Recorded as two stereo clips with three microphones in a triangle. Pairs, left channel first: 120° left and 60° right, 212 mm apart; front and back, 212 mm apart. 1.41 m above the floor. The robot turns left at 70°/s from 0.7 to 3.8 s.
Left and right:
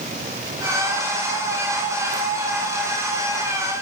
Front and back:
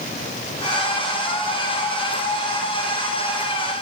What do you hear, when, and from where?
Only background noise.